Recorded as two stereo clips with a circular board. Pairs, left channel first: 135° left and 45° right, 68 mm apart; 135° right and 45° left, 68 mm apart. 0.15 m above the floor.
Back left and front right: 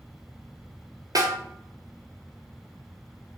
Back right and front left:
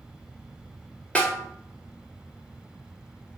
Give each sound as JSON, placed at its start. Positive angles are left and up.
{"t": 1.1, "sound": "a snare drum", "azimuth_deg": -60, "distance_m": 1.0}